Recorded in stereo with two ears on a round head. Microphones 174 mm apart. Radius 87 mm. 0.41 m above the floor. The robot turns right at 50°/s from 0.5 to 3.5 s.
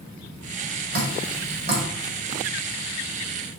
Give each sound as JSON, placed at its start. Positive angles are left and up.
{"t": 0.9, "sound": "dripping", "side_deg": -55, "distance_m": 2.5}